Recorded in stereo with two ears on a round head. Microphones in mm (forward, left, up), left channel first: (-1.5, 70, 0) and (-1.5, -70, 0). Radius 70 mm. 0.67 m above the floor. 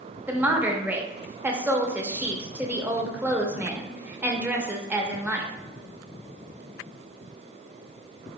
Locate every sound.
0.3 s a woman speaking: 10° right (ahead or behind), 0.6 m